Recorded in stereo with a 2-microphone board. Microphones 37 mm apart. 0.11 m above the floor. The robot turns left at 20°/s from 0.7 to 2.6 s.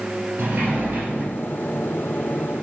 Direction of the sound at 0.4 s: 55° right (ahead or behind).